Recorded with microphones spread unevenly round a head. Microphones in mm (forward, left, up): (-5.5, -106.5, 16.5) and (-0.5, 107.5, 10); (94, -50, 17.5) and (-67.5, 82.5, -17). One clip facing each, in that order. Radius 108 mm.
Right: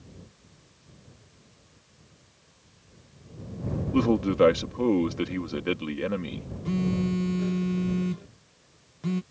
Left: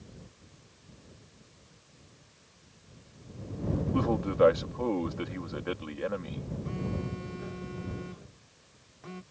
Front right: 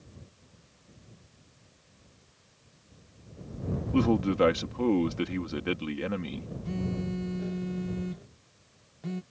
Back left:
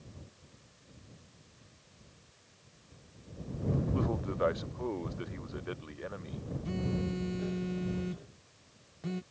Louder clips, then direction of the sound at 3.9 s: Right 7 dB, front right 9 dB; 40° right.